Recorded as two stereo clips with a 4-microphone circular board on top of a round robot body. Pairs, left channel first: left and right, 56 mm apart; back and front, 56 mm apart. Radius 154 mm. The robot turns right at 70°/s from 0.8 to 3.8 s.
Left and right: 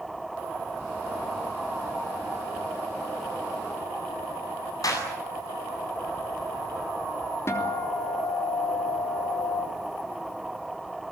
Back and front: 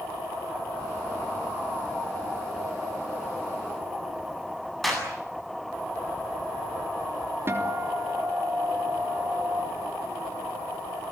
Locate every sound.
4.8 s a clap: 90° left, 8 m
7.5 s a guitar: 50° left, 3.5 m